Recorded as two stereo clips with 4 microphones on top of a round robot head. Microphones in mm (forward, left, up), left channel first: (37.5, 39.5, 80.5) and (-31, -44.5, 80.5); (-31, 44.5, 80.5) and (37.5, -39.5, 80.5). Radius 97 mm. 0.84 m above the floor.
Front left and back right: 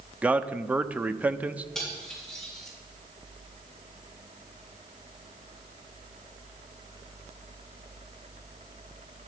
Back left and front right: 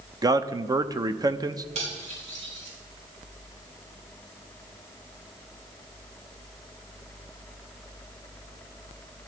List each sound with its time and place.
0.2 s a man speaking: 60° right, 0.8 m
1.8 s cutlery clinking: 35° right, 5 m